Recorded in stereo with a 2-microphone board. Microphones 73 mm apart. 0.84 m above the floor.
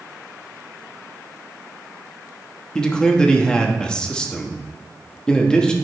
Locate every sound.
2.8 s a man speaking: 10° left (ahead or behind), 1.1 m